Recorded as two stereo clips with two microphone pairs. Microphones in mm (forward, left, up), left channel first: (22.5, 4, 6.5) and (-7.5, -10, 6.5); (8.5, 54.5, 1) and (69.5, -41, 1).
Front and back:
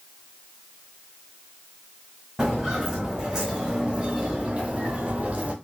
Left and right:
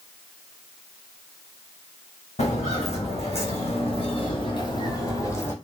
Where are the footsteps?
125° left, 2 m; by 5.5 s 175° right, 1.1 m.